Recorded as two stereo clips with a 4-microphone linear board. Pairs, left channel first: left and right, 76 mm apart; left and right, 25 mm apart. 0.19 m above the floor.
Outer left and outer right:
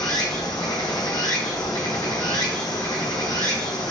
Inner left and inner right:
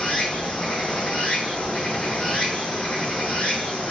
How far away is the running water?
About 2 m.